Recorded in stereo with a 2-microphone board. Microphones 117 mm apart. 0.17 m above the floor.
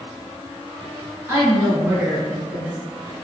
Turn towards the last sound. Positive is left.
turn(degrees=-5)  # may be behind; listen again after turning